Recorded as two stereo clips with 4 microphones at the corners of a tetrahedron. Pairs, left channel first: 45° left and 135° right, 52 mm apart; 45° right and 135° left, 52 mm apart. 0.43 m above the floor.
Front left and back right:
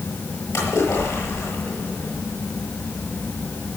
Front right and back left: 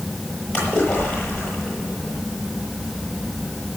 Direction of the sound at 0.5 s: 30° left.